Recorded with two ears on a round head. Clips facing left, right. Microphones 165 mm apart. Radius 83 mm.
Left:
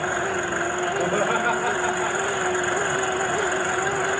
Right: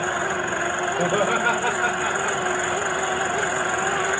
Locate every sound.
1.0 s laughter: 10° right (ahead or behind), 2.0 m; by 2.8 s 5° right (ahead or behind), 3 m